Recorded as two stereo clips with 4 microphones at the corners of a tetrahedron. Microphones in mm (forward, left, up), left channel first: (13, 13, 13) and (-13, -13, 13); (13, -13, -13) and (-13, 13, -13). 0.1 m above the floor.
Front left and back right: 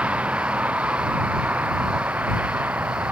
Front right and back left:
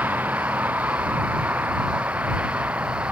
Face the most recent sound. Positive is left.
turn(degrees=-175)